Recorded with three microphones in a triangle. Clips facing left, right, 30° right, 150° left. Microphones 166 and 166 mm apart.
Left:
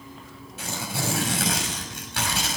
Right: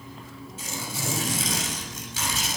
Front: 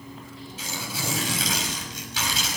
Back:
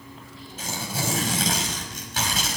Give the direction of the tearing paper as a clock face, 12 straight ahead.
8 o'clock.